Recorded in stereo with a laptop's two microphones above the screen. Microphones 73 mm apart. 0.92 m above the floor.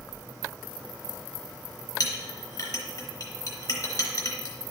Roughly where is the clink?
Left.